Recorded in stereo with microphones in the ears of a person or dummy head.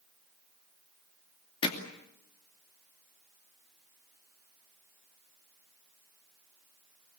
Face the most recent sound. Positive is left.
turn(degrees=30)  # may be behind; listen again after turning